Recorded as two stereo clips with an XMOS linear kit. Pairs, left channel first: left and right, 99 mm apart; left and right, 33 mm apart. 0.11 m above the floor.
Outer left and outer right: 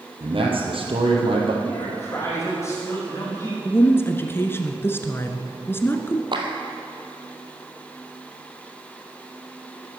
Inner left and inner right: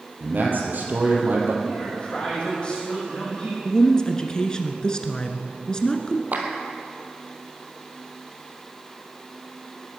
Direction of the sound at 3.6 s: 25° left (ahead or behind).